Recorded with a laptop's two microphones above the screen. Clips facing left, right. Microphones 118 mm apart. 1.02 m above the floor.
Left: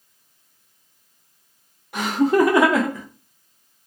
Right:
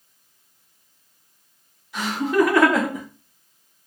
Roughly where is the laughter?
Left.